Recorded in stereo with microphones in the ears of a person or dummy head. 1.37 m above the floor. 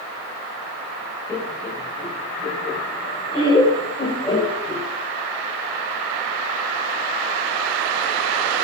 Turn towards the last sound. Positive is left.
turn(degrees=25)  # may be behind; listen again after turning